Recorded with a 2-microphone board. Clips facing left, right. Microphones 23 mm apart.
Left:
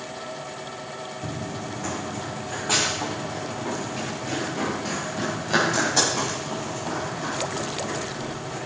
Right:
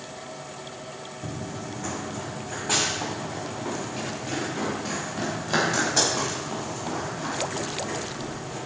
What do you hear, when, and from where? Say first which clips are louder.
1.2 s running footsteps: left 1 dB; 10° left (ahead or behind), 1.6 m; by 8.6 s 5° left (ahead or behind), 10.5 m